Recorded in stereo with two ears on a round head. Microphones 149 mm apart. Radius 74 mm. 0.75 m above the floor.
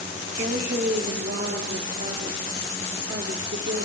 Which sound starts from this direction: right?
A woman speaking, at 0.4 s.